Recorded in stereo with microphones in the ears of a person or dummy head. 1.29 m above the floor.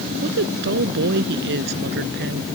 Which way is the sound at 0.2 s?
60° right (ahead or behind).